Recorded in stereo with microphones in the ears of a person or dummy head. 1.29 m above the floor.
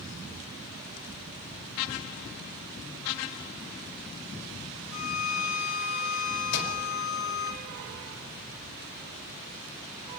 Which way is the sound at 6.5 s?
55° left (ahead or behind).